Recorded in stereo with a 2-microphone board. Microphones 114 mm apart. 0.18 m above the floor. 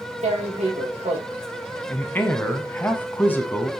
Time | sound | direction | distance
0.2 | tearing paper | 75° right (ahead or behind) | 3 m
1.9 | a man speaking | 15° left (ahead or behind) | 1.0 m